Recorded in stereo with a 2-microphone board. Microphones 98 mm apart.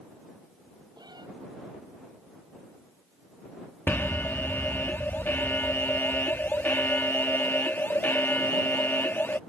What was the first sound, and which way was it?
A cat meowing, 45° right (ahead or behind).